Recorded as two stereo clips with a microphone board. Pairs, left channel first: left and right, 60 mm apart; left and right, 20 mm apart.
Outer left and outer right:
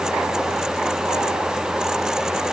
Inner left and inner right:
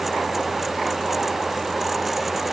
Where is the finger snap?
No finger snap in this recording.